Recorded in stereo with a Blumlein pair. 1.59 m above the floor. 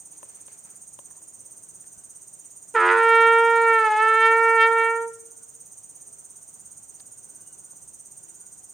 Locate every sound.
0.0 s an insect: 10° right, 3 m
2.7 s a trumpet: 5° right, 0.5 m